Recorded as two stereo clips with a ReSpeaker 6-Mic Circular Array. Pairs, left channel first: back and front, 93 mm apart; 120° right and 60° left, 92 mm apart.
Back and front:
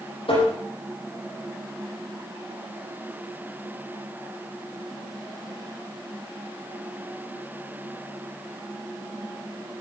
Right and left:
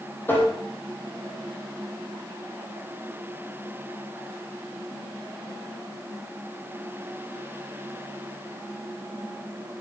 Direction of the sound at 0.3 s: 175° left.